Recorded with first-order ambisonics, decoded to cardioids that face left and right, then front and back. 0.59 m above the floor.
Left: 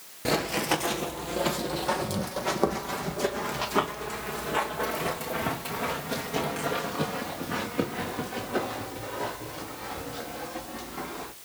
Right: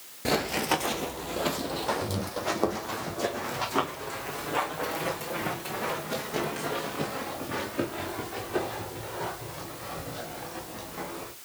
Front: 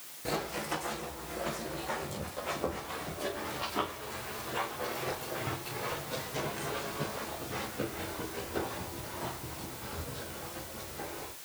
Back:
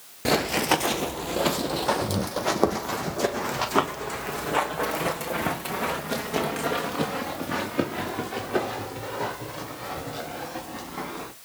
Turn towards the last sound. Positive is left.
turn(degrees=175)